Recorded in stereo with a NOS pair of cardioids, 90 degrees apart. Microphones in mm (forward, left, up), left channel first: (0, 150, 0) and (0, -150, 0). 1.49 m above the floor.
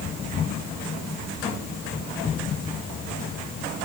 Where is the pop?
I don't hear a pop.